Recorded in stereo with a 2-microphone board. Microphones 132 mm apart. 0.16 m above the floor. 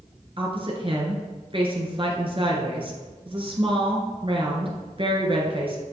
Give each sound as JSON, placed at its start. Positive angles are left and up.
{"t": 0.4, "sound": "a woman speaking", "side_deg": -45, "distance_m": 2.5}